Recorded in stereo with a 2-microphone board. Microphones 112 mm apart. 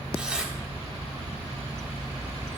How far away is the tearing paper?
About 2.5 m.